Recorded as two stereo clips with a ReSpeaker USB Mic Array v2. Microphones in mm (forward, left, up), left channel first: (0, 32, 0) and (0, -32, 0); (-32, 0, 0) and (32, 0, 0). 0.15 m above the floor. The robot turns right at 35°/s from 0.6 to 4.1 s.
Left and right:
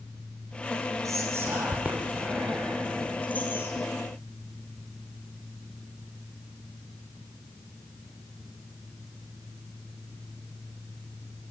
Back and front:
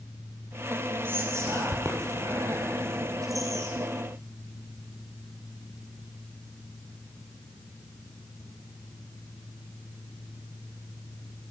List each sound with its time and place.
1.0 s whispering: 55° right, 4 m; by 3.9 s 45° left, 4 m